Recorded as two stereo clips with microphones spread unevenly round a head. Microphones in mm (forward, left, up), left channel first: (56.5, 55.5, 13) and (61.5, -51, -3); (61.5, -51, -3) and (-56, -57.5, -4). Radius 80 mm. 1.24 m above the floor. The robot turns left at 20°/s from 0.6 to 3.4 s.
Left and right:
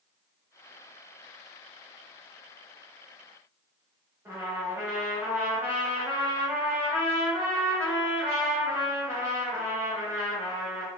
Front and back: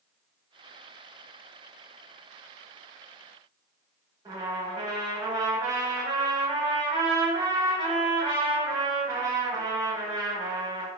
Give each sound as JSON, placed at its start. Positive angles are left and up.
{"t": 4.2, "sound": "a trumpet", "azimuth_deg": -160, "distance_m": 1.0}